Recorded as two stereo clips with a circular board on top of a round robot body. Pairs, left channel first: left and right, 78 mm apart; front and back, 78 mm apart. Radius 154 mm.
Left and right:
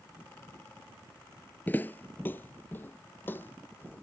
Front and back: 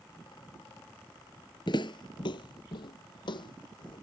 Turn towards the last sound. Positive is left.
turn(degrees=25)